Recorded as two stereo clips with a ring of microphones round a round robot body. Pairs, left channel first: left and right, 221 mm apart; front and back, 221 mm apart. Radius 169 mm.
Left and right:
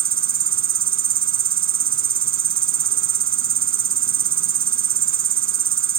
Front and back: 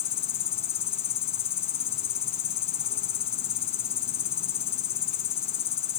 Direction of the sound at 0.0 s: 70° right.